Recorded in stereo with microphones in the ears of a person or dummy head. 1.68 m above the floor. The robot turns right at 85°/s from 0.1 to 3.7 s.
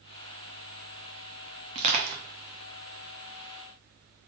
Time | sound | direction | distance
1.8 | crushing | 35° right (ahead or behind) | 0.7 m